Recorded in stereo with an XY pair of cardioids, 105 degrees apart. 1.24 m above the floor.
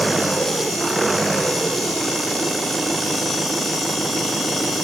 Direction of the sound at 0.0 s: 15° right.